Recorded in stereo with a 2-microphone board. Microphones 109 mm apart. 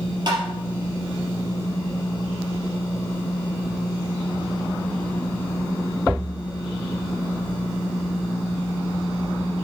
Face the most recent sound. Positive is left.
turn(degrees=-45)  # may be behind; listen again after turning